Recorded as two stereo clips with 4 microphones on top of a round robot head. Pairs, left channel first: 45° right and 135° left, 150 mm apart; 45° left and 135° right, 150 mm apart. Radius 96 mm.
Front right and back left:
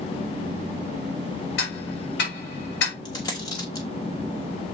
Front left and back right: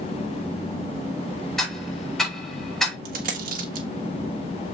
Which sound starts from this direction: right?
A dropped coin, at 3.0 s.